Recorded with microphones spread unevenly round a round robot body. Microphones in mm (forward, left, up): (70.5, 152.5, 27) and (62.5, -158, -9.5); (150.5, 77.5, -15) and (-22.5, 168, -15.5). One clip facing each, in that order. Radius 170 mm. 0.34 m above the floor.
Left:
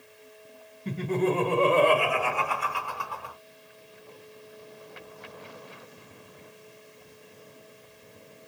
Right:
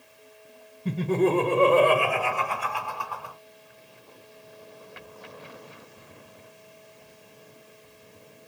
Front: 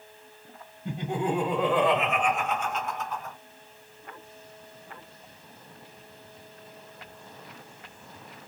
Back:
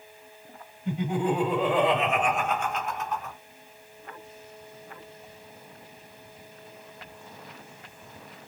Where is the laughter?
80° right, 1.6 m; by 3.4 s 155° left, 2.5 m.